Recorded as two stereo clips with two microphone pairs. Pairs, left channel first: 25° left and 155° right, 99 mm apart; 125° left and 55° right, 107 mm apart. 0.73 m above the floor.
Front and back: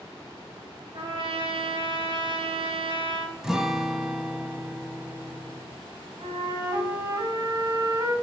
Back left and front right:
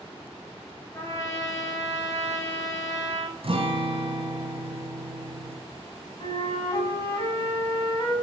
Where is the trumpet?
175° right, 1.9 m.